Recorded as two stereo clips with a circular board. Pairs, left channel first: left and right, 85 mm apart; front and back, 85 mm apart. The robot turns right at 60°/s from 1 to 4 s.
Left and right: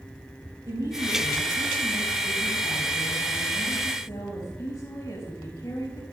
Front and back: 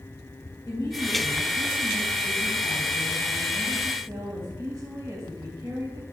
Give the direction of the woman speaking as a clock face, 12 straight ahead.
1 o'clock.